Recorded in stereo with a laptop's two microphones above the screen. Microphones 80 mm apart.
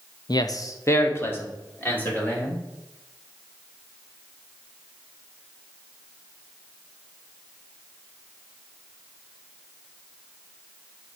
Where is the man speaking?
60° left (ahead or behind), 0.5 m; by 2.6 s 20° left (ahead or behind), 3 m.